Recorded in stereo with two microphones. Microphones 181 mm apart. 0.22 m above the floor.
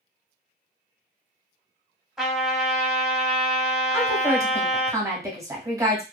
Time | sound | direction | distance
2.2 | a trumpet | 5° right (ahead or behind) | 1.0 m
3.9 | a woman speaking | 20° right (ahead or behind) | 1.0 m